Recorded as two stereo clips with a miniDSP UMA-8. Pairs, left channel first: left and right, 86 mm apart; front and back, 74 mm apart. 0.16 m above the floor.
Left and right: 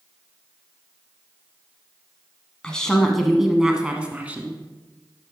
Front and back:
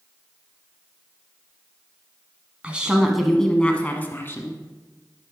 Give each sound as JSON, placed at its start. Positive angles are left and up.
{"t": 2.6, "sound": "a woman speaking", "azimuth_deg": 150, "distance_m": 1.0}